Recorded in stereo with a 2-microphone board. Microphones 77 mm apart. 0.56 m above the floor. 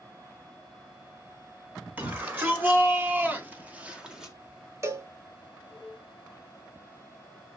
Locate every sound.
2.0 s a shout: 20° right (ahead or behind), 1.7 m; by 4.3 s 5° right (ahead or behind), 0.8 m
4.8 s a cowbell: 40° right (ahead or behind), 0.8 m